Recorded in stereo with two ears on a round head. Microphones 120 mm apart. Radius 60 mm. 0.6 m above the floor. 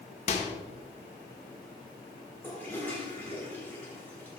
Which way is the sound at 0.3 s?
50° left (ahead or behind).